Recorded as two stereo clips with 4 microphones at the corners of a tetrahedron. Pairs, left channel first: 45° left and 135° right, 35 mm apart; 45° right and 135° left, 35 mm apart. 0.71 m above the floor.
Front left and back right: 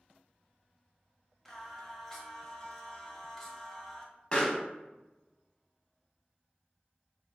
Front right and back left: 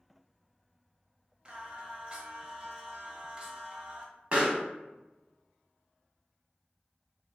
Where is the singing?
110° left, 0.5 m.